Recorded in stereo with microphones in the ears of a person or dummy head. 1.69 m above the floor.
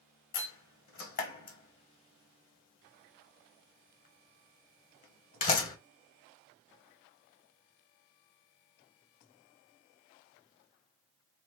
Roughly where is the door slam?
Left.